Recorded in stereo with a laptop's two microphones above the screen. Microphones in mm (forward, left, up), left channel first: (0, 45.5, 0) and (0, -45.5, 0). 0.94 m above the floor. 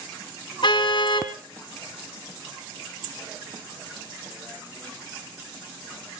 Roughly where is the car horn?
Left.